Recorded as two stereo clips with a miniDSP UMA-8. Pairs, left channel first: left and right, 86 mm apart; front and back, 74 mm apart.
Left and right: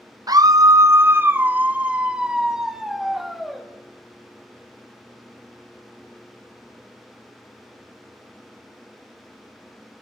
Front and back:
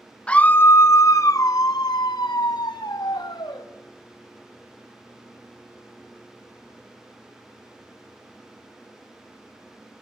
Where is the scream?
70° right, 0.7 m; by 3.6 s straight ahead, 1.9 m.